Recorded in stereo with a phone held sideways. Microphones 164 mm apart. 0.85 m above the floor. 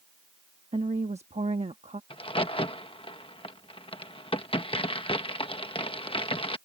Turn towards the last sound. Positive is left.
turn(degrees=35)  # may be behind; listen again after turning